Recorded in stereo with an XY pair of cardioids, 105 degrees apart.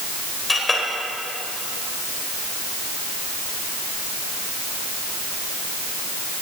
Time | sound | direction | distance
0.5 | a clink | 20° left | 3.5 m